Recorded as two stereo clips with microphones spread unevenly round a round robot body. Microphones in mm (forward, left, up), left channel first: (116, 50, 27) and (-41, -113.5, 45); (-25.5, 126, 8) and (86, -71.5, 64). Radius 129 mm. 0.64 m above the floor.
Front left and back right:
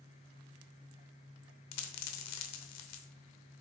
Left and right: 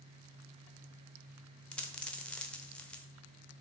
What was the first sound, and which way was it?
A dropped coin, 30° left.